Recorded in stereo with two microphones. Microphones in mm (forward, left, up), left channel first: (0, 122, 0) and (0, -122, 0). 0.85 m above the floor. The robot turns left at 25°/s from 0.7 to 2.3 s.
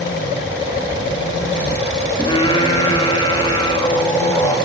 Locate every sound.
2.2 s singing: 20° left (ahead or behind), 1.7 m